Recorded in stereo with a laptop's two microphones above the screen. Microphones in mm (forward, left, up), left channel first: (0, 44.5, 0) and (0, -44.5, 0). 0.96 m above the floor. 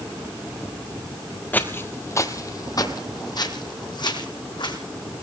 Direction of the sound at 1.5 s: 20° left (ahead or behind).